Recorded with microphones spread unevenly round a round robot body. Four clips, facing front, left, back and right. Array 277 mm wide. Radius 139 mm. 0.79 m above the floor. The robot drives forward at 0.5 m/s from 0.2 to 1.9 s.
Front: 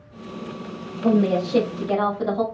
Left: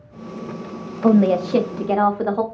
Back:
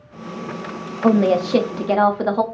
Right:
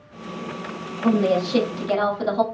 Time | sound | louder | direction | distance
1.0 | a woman speaking | left 4 dB, back 4 dB | 150° left | 0.6 m